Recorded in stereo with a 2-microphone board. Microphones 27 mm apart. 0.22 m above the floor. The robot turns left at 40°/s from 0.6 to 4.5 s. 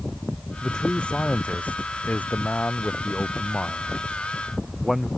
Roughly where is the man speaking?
Behind left.